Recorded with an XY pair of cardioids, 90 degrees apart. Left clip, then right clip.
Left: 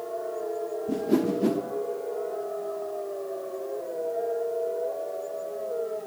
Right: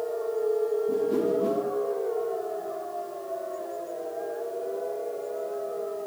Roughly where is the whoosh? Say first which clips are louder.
Right 1 dB; ahead left.